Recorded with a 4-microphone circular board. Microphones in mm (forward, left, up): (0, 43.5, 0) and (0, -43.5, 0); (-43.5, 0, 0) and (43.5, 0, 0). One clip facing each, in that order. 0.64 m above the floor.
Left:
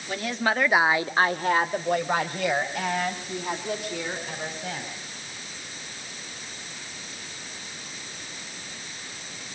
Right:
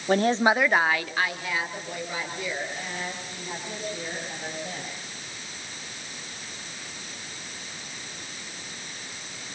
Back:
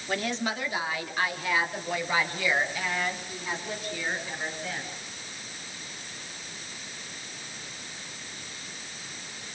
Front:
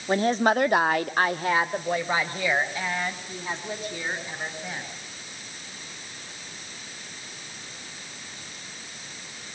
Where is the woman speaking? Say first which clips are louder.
Right 6 dB, front 9 dB; 60° right, 1.1 m; by 4.9 s 65° left, 6.5 m.